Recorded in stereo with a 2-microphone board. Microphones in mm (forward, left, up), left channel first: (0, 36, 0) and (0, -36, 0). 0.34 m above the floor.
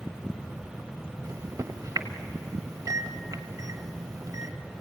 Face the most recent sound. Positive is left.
turn(degrees=-50)  # may be behind; listen again after turning